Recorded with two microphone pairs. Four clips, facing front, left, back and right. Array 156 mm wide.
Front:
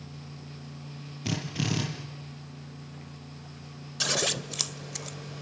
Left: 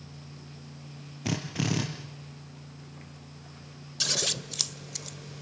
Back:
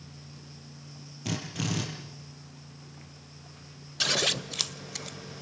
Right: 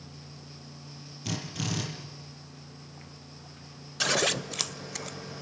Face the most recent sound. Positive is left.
turn(degrees=-80)